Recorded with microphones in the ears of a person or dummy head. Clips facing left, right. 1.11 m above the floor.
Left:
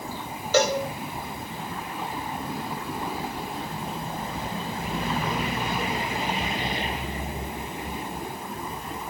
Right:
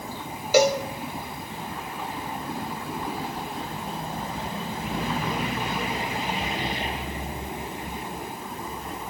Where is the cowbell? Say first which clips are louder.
Right 3 dB; 10° right (ahead or behind), 0.5 m.